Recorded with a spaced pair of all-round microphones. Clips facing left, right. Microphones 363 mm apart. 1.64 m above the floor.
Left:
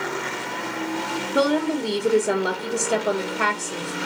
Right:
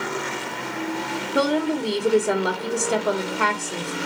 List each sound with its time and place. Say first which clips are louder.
1.4 s a woman speaking: left 1 dB; centre (ahead or behind), 0.5 m